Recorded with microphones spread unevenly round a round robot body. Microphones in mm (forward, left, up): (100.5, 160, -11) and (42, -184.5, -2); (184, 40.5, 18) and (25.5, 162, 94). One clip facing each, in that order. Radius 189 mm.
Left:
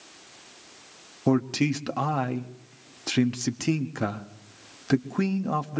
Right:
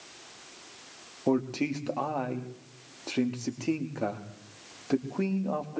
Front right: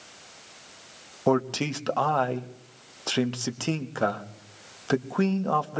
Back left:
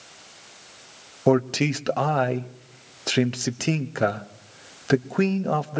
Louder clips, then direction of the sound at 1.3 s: Left 4 dB, back left 4 dB; 55° left.